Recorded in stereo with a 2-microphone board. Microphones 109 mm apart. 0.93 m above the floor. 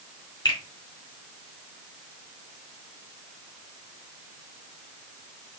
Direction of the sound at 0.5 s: 45° left (ahead or behind).